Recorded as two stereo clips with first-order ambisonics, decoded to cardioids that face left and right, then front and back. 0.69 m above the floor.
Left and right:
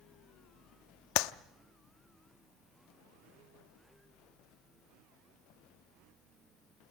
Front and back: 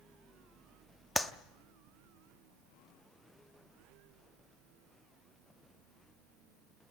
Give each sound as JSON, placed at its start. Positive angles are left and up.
{"t": 1.1, "sound": "a clap", "azimuth_deg": 85, "distance_m": 0.6}